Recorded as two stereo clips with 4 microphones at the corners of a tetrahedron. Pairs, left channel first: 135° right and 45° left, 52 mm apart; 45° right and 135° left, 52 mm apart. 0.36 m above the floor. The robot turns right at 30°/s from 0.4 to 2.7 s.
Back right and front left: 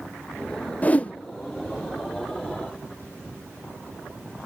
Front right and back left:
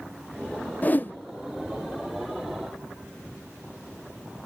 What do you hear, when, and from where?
0.8 s a whoosh: 85° right, 0.5 m; by 1.1 s 75° right, 0.5 m